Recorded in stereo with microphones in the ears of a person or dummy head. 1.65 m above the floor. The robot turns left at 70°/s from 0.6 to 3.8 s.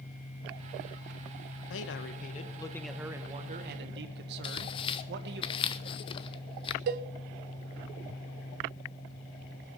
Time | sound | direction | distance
1.7 | a man speaking | 80° left | 1.3 m
4.4 | tearing paper | 25° left (ahead or behind) | 0.6 m
6.9 | a cowbell | 50° right (ahead or behind) | 0.7 m